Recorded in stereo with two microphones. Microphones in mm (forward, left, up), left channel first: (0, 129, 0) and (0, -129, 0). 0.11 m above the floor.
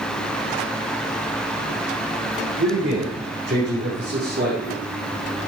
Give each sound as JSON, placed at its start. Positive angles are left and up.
{"t": 2.6, "sound": "a man speaking", "side_deg": -75, "distance_m": 6.5}